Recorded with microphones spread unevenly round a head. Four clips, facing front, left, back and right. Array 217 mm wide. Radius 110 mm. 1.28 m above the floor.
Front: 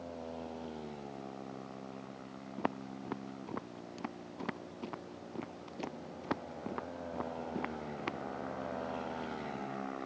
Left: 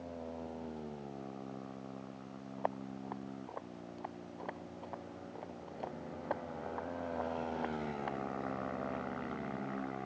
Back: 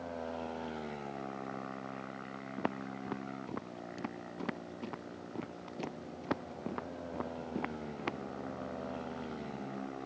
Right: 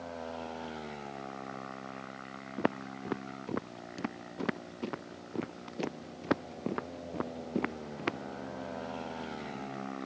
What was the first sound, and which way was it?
Footsteps, 80° right.